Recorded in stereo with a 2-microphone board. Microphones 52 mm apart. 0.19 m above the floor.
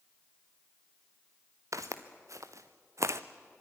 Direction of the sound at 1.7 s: 80° right.